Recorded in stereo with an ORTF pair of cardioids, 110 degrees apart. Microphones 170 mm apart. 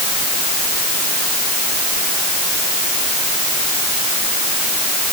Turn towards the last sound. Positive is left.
No sound to turn to.